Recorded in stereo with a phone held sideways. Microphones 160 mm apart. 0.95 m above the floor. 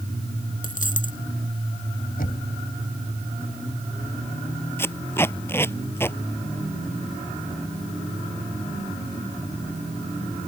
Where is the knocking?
65° left (ahead or behind).